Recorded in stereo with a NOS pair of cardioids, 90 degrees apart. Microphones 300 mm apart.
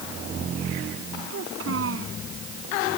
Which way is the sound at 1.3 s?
50° right.